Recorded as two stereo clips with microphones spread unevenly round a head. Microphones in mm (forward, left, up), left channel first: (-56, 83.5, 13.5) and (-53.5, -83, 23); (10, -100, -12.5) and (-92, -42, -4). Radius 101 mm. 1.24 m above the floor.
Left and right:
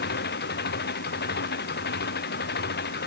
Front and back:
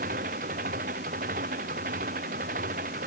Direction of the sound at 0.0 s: 110° left.